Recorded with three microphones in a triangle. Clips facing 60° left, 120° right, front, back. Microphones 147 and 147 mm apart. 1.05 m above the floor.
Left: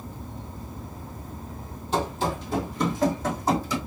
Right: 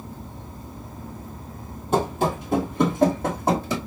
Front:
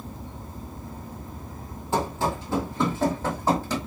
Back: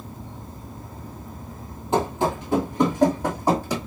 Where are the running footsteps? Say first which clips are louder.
Right 4 dB, back 4 dB; 115° right, 1.6 m; by 3.8 s 105° right, 2.5 m.